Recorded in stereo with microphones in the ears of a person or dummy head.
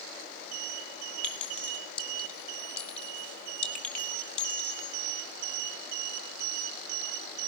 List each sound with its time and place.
1.2 s a clink: 5° left (ahead or behind), 6 m